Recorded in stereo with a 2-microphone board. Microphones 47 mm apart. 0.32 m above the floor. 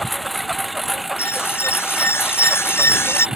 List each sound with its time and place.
0.0 s a lawn mower: centre (ahead or behind); by 3.4 s 15° right (ahead or behind)
1.2 s an alarm: 65° left (ahead or behind)